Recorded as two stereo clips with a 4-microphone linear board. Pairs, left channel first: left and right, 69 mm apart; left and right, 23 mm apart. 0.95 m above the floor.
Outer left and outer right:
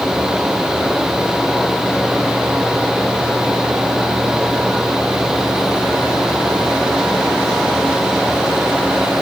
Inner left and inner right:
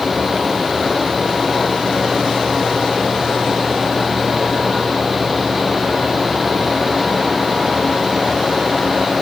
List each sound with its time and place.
Only background noise.